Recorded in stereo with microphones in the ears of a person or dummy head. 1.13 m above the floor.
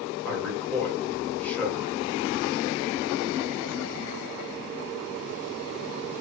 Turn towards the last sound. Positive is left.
turn(degrees=15)  # may be behind; listen again after turning